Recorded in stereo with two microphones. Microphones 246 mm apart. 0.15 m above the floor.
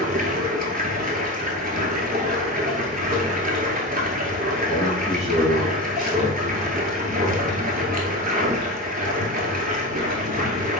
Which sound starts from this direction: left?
A man speaking, at 4.7 s.